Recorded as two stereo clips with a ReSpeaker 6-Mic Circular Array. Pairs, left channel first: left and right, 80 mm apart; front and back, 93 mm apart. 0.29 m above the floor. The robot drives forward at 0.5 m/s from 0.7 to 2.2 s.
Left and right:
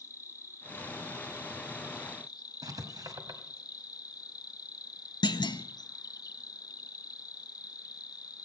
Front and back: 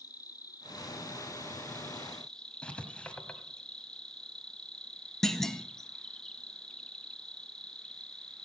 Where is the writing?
75° right, 1.5 m.